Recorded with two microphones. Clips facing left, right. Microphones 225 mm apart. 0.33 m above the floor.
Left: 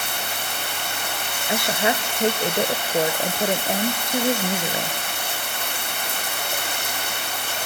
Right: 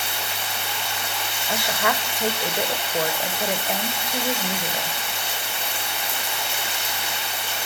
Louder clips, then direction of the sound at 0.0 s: Left 1 dB; 55° left (ahead or behind).